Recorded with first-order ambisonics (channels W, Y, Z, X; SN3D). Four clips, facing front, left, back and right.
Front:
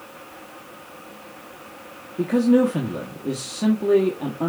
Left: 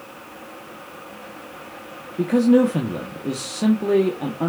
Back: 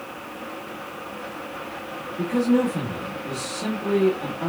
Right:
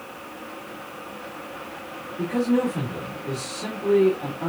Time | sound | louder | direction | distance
2.2 | a man speaking | left 7 dB, front 3 dB | 65° left | 0.8 m